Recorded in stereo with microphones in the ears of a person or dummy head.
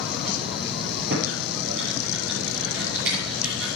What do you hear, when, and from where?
1.1 s typing on a keyboard: 75° right (ahead or behind), 6.5 m